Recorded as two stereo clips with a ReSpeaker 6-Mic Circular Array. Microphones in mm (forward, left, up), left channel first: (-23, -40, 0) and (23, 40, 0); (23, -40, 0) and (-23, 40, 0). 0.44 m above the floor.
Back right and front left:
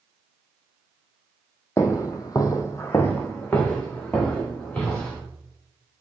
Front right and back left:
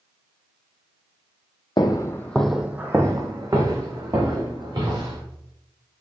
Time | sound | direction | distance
1.8 | footsteps | 70° right | 0.7 m